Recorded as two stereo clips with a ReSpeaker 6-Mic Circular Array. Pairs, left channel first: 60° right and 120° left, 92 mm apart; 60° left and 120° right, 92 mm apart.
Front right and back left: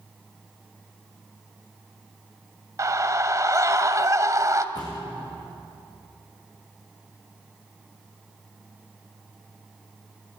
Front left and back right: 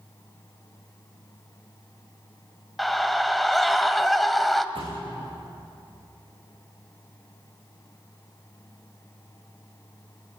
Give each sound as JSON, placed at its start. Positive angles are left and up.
{"t": 2.8, "sound": "a scream", "azimuth_deg": 150, "distance_m": 1.7}
{"t": 4.8, "sound": "a thud", "azimuth_deg": -100, "distance_m": 8.5}